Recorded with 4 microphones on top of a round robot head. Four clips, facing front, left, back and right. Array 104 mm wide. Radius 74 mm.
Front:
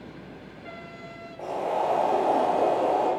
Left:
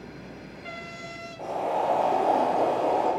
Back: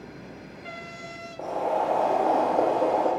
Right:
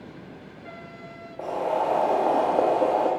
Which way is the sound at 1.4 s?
120° right.